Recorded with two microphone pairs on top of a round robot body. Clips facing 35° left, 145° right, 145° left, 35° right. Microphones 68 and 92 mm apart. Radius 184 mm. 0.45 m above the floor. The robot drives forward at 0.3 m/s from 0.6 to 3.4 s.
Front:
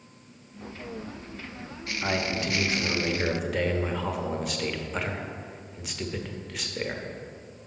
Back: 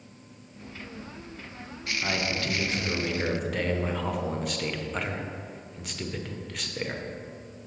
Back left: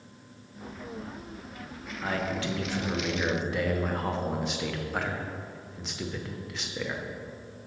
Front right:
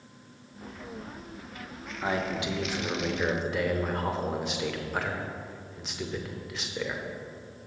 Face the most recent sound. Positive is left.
turn(degrees=65)